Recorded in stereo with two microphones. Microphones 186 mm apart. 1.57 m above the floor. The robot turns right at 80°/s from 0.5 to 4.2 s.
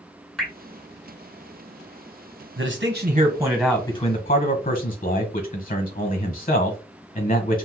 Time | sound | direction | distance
0.4 | dripping | centre (ahead or behind) | 1.3 m
2.6 | a man speaking | 85° right | 1.1 m